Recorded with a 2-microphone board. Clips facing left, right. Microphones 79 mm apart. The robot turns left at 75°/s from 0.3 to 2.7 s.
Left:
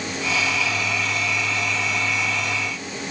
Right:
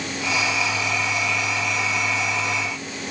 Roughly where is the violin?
I don't hear a violin.